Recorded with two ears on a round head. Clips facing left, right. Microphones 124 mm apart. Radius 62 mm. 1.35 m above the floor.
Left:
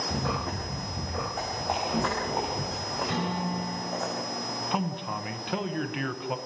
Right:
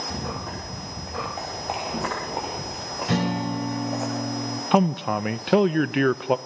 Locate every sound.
0.1 s running footsteps: centre (ahead or behind), 9 m; by 4.1 s 10° right (ahead or behind), 5.5 m
3.1 s a guitar: 60° right (ahead or behind), 3 m
4.7 s a man speaking: 65° right (ahead or behind), 0.7 m